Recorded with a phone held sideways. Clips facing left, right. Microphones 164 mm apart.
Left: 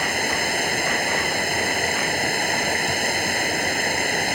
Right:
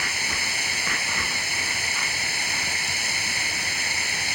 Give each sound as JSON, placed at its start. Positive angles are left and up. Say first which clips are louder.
{"t": 0.0, "sound": "running water", "louder": "left 10 dB", "side_deg": 55}